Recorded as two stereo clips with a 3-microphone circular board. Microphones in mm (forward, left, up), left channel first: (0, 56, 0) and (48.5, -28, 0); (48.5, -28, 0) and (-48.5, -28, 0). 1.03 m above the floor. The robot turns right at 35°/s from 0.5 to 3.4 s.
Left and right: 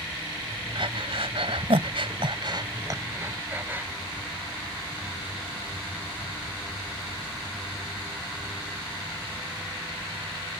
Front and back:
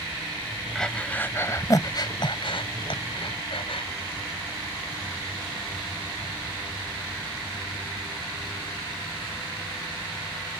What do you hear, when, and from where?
0.8 s breathing: 85° right; by 3.9 s 5° left